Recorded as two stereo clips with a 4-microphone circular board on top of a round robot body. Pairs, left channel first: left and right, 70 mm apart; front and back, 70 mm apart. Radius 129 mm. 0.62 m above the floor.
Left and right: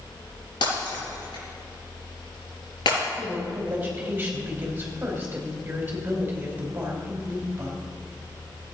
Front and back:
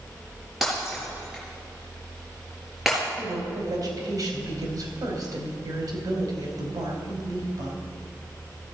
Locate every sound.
0.6 s breaking glass: 95° left, 4 m
3.2 s a woman speaking: 155° right, 3 m